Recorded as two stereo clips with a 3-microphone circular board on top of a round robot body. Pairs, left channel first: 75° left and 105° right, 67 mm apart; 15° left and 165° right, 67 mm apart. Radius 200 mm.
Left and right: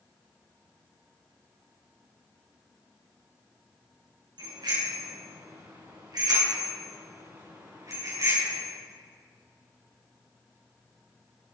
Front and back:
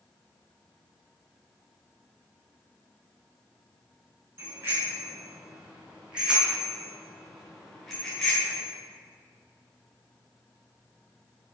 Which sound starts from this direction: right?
A bicycle bell, at 4.4 s.